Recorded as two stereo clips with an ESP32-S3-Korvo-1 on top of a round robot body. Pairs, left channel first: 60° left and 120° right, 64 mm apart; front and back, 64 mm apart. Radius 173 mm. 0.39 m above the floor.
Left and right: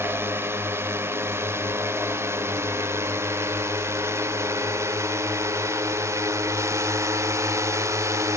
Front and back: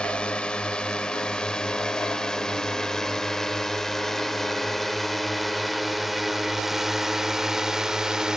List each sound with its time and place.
0.0 s a drone: 70° right; by 8.4 s 100° right